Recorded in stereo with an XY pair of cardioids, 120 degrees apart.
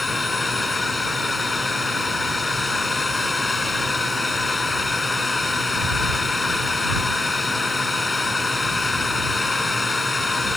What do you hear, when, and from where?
0.0 s a drone: 20° left